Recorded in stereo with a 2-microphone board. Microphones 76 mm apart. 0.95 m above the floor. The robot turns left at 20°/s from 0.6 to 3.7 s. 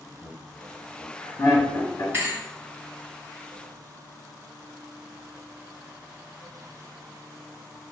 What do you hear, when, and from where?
0.2 s laughter: 50° left (ahead or behind), 1.2 m; by 2.0 s 55° left (ahead or behind), 1.2 m
2.1 s a thud: 40° right (ahead or behind), 1.7 m; by 2.4 s 45° right (ahead or behind), 1.7 m